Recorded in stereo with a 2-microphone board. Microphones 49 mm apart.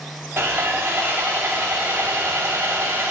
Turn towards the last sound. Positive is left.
turn(degrees=-55)  # may be behind; listen again after turning